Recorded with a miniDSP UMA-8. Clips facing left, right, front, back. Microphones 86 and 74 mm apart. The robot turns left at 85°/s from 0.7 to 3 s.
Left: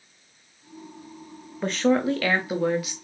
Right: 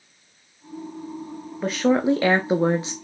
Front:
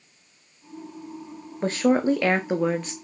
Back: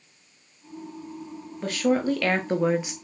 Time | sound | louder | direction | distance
1.6 | a woman speaking | right 2 dB, front 3 dB | straight ahead | 0.6 m